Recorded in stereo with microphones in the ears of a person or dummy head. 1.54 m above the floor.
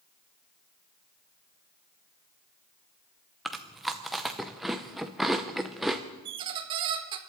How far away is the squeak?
About 1.0 m.